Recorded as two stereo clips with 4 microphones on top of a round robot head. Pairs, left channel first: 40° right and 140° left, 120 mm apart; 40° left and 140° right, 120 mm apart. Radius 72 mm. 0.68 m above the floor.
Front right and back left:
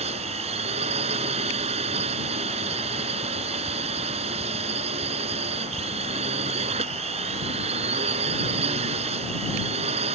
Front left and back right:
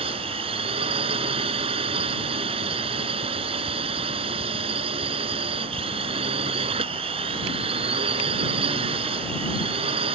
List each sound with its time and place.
0.0 s a drone: 175° left